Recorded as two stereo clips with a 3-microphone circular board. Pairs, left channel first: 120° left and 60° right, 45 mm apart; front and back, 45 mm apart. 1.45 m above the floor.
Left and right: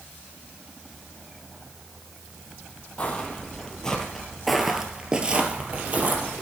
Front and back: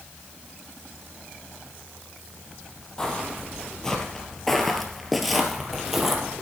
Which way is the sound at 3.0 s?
65° left.